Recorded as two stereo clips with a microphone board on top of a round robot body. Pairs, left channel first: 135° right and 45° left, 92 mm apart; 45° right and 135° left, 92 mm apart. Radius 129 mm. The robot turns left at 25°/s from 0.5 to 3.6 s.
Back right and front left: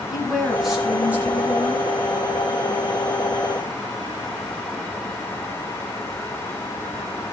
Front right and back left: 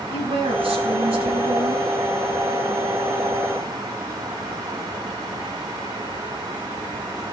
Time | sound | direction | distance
0.1 | a woman speaking | 135° left | 5.5 m